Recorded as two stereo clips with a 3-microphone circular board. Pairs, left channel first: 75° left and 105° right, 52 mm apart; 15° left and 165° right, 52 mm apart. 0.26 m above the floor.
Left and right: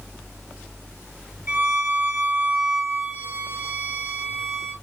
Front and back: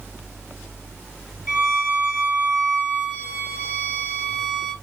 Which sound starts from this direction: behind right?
A violin, at 1.5 s.